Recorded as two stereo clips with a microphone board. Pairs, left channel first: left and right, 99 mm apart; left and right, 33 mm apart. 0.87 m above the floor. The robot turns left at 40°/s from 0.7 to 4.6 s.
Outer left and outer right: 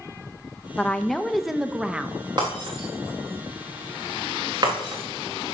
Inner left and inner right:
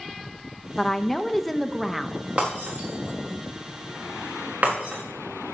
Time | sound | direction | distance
0.8 | a woman speaking | 10° left (ahead or behind) | 0.6 m
2.4 | breaking glass | 45° right (ahead or behind) | 4.5 m